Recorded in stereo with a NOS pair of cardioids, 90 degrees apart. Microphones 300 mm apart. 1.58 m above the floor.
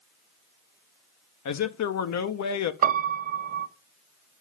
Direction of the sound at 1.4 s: 65° left.